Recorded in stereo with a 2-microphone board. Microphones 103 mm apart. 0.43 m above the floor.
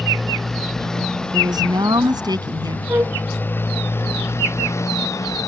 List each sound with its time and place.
0.0 s a motorcycle: 5° left (ahead or behind); by 5.5 s 35° left (ahead or behind)
1.3 s a woman speaking: 45° right (ahead or behind)
2.9 s a flute: 25° right (ahead or behind)